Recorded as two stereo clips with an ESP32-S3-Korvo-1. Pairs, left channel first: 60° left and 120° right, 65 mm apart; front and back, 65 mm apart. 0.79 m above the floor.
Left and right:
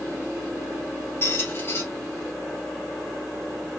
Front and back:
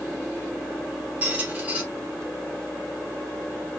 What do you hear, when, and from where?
1.2 s a squeak: 110° left, 2 m